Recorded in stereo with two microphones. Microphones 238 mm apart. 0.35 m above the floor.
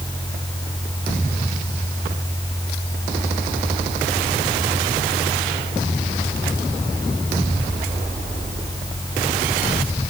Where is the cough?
No cough in this recording.